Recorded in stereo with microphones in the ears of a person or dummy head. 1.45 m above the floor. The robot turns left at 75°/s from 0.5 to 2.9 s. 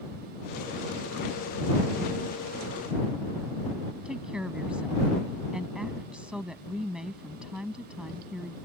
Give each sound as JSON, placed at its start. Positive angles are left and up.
{"t": 4.0, "sound": "a woman speaking", "side_deg": -5}